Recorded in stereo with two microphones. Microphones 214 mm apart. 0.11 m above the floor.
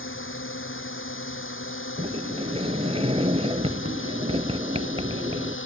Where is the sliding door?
30° right (ahead or behind).